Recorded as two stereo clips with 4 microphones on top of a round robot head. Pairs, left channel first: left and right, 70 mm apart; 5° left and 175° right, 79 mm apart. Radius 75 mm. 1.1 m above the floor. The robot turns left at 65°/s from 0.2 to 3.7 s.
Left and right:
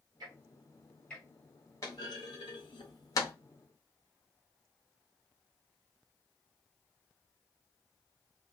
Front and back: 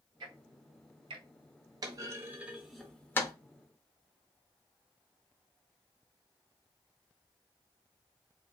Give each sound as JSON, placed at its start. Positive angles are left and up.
{"t": 0.2, "sound": "ticking", "azimuth_deg": -135, "distance_m": 0.6}
{"t": 1.8, "sound": "a clunk", "azimuth_deg": 150, "distance_m": 0.5}